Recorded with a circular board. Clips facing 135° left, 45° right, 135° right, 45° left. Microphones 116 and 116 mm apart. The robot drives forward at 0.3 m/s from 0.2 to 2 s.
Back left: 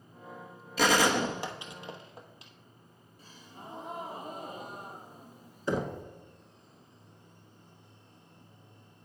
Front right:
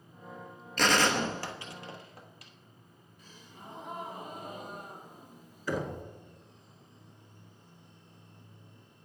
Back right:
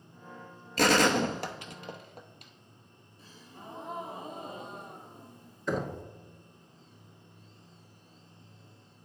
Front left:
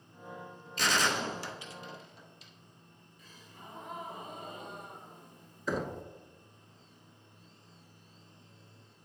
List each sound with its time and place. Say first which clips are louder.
0.8 s a gunshot: back left 2 dB, back right 7 dB; 145° right, 0.6 m; by 2.5 s 160° right, 0.9 m
3.2 s a gasp: back left 2 dB, back right 4 dB; straight behind, 1.6 m
5.7 s knocking: back left 2 dB, back right 2 dB; 130° left, 0.8 m